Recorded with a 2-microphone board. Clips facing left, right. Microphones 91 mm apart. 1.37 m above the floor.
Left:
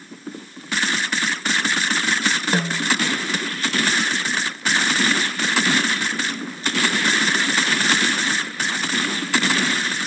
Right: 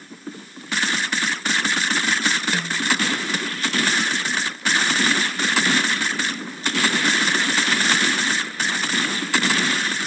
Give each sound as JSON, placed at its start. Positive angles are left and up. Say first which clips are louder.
{"t": 2.5, "sound": "a snare drum", "louder": "left 3 dB", "side_deg": 40}